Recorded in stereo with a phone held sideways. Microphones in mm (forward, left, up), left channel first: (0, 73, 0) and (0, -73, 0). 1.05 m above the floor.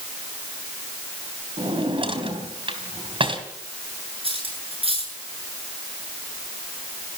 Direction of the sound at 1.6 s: 40° right (ahead or behind).